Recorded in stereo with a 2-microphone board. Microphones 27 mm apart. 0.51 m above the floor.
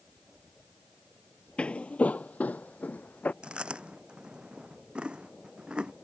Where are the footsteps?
40° left (ahead or behind); by 3.3 s 75° left (ahead or behind).